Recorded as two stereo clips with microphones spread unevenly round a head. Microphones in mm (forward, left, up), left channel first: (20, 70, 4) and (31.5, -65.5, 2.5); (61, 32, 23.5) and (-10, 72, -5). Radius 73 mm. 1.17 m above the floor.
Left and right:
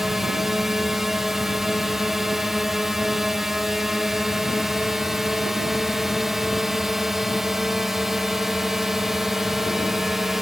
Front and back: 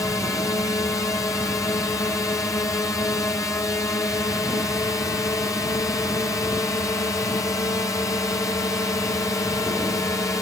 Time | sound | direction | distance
0.0 | a drone | straight ahead | ?